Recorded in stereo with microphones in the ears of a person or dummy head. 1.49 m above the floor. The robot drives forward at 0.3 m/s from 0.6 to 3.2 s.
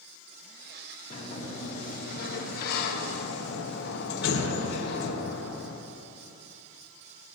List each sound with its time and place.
1.1 s a sliding door: 40° left (ahead or behind), 1.4 m; by 5.8 s 65° left (ahead or behind), 1.0 m